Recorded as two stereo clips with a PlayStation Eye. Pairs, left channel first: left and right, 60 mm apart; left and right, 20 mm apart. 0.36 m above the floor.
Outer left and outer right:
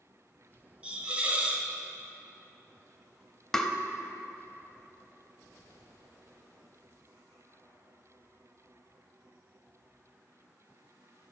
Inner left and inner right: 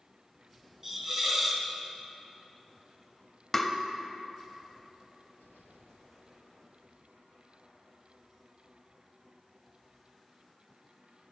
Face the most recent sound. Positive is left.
turn(degrees=10)  # may be behind; listen again after turning